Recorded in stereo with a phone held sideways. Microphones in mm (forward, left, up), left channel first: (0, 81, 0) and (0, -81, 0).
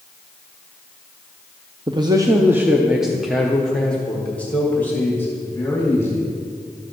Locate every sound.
1.9 s a man speaking: 30° right (ahead or behind), 0.7 m; by 6.3 s 15° left (ahead or behind), 3 m